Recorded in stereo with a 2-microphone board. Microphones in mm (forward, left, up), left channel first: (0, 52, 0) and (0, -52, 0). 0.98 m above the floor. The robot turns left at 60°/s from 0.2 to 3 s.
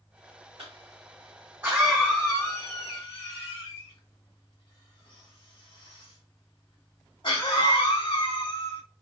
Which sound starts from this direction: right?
A cough, at 0.6 s.